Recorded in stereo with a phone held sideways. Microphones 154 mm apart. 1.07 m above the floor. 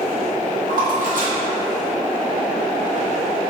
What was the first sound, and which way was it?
A splash, 70° right (ahead or behind).